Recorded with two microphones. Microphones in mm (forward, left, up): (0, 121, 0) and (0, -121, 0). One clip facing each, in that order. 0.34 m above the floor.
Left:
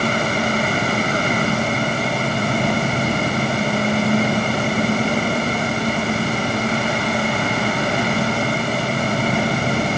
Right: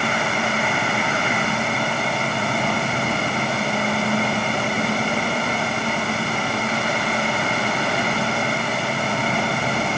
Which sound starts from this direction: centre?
An engine running, at 0.0 s.